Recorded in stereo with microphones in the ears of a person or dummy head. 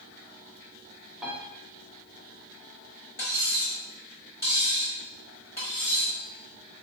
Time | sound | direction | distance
1.2 | a piano | 5° left (ahead or behind) | 0.8 m
3.2 | cutlery clinking | 5° left (ahead or behind) | 1.1 m